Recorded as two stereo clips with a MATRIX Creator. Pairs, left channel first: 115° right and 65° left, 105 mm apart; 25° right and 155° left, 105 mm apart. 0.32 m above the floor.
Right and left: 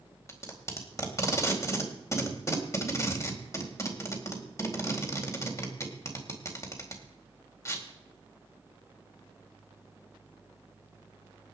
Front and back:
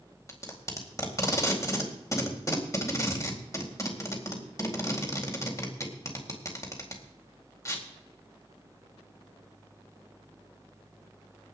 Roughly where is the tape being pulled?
Ahead right.